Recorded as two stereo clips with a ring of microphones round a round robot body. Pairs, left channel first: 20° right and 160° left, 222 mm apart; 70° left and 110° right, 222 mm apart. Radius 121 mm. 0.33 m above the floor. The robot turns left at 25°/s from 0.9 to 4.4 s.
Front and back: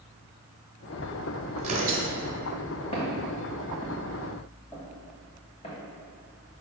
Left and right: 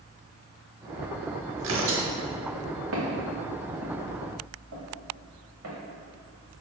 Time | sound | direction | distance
1.6 | tearing paper | 140° right | 0.9 m
2.9 | footsteps | 85° right | 1.2 m